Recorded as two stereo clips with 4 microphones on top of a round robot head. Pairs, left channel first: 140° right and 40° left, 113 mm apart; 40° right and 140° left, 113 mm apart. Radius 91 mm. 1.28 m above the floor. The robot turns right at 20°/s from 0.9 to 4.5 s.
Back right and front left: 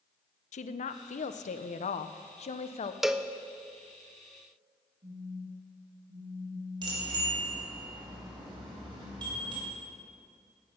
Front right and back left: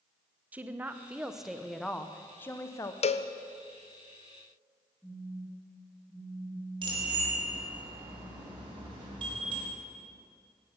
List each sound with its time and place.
0.5 s a woman speaking: 145° right, 0.6 m; by 2.9 s 105° right, 0.6 m
3.0 s a cowbell: 45° right, 0.6 m; by 3.3 s 40° right, 0.6 m
5.0 s a phone buzzing: 40° left, 3 m
6.8 s a bicycle bell: 95° left, 4 m